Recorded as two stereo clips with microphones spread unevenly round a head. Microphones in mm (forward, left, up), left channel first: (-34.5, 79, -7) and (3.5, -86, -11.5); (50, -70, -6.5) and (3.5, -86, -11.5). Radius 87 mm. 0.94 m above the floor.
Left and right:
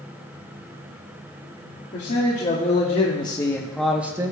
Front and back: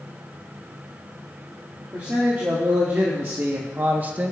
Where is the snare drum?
No snare drum in this recording.